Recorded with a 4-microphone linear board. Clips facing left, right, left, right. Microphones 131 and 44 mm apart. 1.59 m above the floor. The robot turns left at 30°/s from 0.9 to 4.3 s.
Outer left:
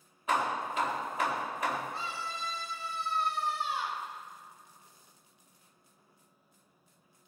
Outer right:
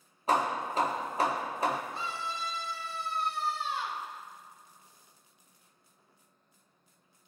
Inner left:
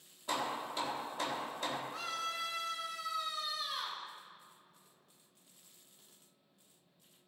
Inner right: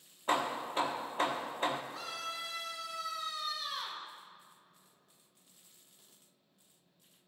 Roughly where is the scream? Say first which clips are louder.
Outer right 2 dB, inner left 2 dB; left.